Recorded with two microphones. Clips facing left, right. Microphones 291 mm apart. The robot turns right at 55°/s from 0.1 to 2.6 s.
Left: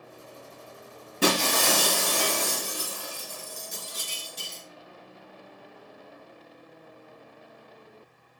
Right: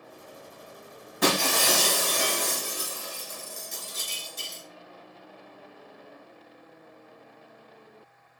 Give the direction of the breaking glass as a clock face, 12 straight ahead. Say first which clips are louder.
Left 1 dB; 11 o'clock.